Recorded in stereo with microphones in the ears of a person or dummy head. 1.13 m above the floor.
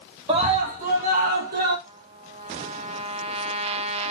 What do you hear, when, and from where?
0.3 s a scream: 30° right (ahead or behind), 1.9 m; by 1.8 s 45° right (ahead or behind), 4 m
1.9 s a trumpet: 40° right (ahead or behind), 1.3 m